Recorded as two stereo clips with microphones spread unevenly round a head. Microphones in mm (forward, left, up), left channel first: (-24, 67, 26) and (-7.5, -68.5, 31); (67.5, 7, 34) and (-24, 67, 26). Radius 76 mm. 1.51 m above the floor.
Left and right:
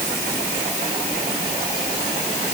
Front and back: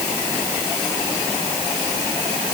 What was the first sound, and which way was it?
Only background noise.